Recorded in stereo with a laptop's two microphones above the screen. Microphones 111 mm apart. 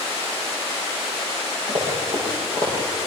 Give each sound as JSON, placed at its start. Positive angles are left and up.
{"t": 1.7, "sound": "running footsteps", "side_deg": -70, "distance_m": 9.5}